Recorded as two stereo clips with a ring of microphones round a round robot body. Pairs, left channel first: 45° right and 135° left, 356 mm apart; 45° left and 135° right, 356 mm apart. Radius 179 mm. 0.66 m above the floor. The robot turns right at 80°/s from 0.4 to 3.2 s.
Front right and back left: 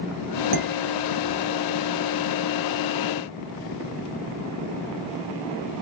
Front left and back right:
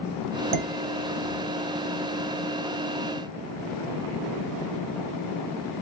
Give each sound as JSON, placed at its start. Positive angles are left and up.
{"t": 0.5, "sound": "dishes clattering", "azimuth_deg": 180, "distance_m": 2.5}